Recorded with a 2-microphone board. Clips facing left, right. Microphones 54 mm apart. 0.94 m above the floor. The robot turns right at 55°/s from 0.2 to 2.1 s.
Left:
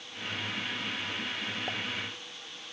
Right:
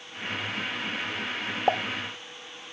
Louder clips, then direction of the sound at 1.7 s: Right 16 dB; 65° right (ahead or behind).